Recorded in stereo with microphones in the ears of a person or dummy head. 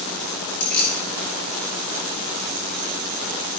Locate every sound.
0.6 s keys jangling: 55° left (ahead or behind), 3 m